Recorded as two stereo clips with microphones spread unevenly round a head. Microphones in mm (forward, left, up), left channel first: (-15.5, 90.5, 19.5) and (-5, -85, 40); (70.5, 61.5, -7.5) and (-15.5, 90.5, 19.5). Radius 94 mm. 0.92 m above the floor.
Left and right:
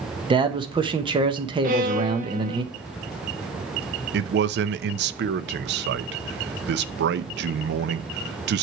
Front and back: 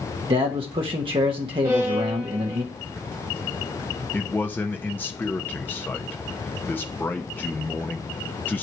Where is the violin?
125° right, 1.3 m.